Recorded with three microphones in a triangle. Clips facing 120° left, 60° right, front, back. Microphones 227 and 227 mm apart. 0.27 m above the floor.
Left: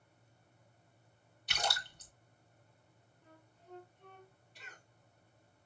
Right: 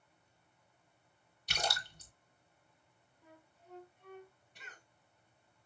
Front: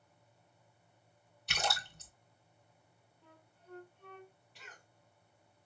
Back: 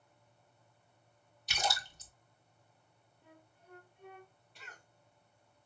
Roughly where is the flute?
Behind right.